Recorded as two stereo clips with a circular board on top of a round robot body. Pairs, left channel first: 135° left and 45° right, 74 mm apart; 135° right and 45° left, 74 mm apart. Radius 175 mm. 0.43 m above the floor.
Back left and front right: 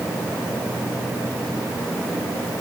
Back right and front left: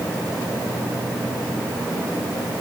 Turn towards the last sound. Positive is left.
No sound to turn to.